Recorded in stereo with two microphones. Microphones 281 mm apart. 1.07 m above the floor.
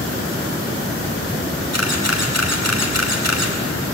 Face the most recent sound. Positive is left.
turn(degrees=-80)